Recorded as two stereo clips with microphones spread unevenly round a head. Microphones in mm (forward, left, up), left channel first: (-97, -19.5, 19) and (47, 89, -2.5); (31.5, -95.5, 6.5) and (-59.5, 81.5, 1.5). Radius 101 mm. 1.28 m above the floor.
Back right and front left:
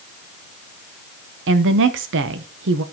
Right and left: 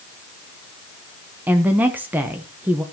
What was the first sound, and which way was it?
A woman speaking, 35° left.